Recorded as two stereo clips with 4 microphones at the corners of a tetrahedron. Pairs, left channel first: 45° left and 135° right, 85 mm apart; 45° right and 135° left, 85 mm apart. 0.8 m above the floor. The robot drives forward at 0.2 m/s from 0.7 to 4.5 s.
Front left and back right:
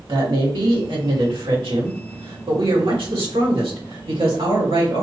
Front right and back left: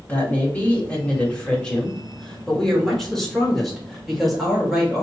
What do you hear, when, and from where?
0.1 s a woman speaking: 115° right, 1.7 m; by 5.0 s 135° right, 2 m